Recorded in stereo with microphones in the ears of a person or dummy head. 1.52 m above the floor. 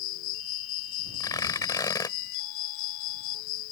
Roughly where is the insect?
Left.